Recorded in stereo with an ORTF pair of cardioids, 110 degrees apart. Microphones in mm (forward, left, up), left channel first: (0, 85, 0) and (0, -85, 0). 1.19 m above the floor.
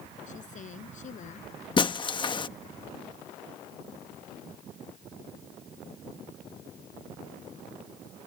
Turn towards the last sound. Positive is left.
turn(degrees=30)